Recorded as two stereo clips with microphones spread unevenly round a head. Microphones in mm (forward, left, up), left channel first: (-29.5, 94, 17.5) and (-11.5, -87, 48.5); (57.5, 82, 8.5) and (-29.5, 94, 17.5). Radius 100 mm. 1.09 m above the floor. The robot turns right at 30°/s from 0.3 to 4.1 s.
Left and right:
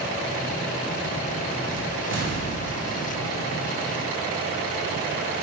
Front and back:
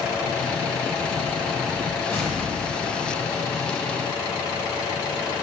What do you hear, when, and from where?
2.1 s an explosion: 80° right, 1.9 m; by 3.4 s 45° right, 1.9 m